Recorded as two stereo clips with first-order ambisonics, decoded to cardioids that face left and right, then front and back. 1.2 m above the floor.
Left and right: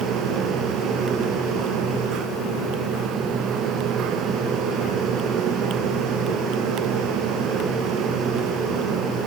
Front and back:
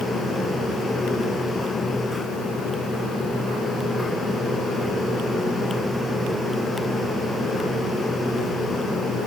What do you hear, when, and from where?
Only background noise.